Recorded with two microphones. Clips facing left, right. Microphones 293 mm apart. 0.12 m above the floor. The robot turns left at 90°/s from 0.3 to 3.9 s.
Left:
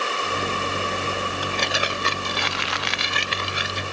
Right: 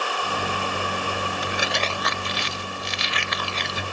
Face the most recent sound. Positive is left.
turn(degrees=-15)